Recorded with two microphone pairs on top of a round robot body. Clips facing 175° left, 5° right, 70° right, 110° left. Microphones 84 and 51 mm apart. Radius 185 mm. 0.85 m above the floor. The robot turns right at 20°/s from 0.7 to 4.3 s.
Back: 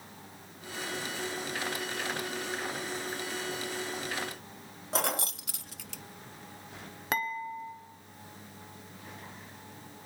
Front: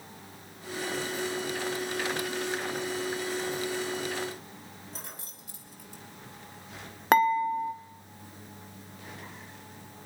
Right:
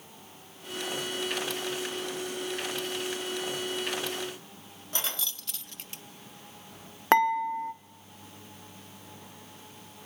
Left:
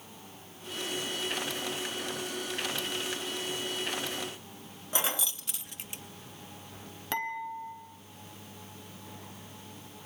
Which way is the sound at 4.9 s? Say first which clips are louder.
Back 14 dB, left 3 dB; 175° right.